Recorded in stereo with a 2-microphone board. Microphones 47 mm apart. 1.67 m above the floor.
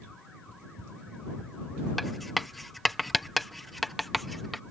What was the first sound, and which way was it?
Running footsteps, 75° right (ahead or behind).